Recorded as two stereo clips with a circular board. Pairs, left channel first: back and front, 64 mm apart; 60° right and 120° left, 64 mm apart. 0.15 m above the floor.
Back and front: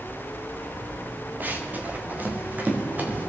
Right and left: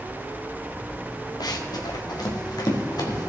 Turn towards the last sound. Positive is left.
turn(degrees=-65)